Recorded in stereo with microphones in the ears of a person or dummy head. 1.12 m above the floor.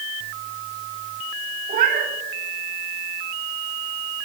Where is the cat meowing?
50° right (ahead or behind), 2 m.